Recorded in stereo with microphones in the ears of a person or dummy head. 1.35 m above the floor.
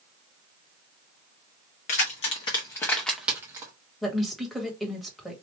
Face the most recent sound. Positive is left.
turn(degrees=5)  # may be behind; listen again after turning